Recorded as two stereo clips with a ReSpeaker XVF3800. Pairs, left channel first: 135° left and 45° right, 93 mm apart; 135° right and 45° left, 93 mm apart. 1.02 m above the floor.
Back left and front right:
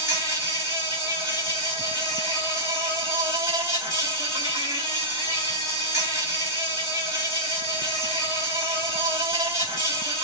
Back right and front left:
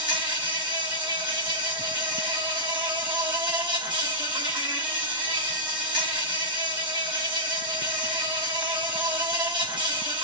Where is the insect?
15° left, 4.5 m.